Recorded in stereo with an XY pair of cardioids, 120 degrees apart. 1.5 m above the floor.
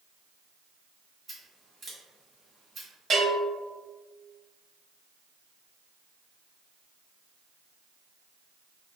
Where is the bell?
45° right, 1.7 m.